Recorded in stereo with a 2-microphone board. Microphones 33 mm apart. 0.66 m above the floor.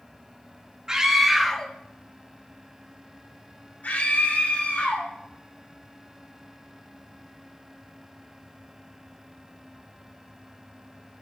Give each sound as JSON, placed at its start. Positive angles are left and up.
{"t": 0.9, "sound": "a scream", "side_deg": -25, "distance_m": 0.7}